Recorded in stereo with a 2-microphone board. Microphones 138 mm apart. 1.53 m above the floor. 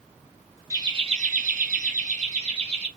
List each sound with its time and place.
0.7 s laughter: 25° right (ahead or behind), 0.7 m; by 2.9 s 45° right (ahead or behind), 1.3 m